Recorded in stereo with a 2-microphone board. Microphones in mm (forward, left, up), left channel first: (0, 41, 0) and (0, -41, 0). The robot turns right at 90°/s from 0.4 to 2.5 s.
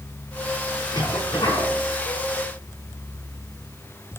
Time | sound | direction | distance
0.9 | a cough | 50° left | 7.5 m